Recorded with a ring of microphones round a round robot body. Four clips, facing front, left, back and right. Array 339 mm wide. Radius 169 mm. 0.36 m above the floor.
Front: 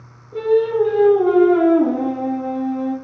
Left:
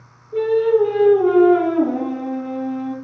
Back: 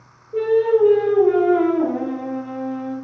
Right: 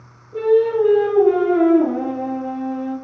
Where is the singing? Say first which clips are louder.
Even, even; 40° left, 1.1 m.